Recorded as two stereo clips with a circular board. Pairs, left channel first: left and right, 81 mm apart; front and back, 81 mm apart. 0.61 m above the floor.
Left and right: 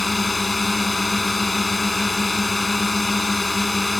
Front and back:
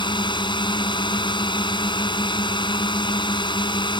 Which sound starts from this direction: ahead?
A drone, at 0.0 s.